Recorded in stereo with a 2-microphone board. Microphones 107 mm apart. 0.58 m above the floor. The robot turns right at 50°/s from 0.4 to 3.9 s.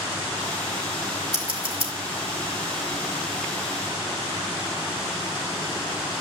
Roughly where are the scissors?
Right.